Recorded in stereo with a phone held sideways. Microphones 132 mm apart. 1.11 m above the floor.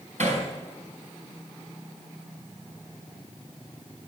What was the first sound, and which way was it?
Hammering, 75° right (ahead or behind).